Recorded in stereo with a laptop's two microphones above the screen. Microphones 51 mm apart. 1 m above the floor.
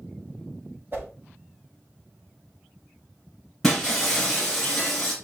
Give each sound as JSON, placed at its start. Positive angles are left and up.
{"t": 0.9, "sound": "a whoosh", "side_deg": -45, "distance_m": 1.2}
{"t": 3.6, "sound": "breaking glass", "side_deg": 5, "distance_m": 2.0}